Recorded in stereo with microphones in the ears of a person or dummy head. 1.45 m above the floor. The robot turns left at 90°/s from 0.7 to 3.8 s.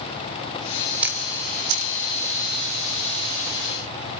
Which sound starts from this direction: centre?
A camera shutter, at 1.0 s.